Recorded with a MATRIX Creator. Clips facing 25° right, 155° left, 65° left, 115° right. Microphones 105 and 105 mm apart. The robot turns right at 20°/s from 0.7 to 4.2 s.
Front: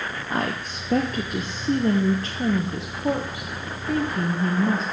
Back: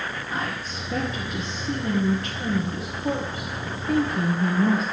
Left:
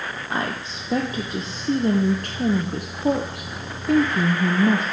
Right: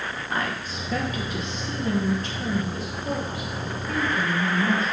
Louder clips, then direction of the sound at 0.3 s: Front 6 dB, left 2 dB; straight ahead.